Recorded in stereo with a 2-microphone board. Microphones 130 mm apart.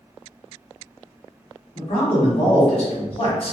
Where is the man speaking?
50° left (ahead or behind), 1.1 m.